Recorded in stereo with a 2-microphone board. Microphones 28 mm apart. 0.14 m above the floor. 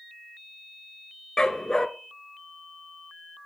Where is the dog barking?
25° left (ahead or behind), 0.7 m.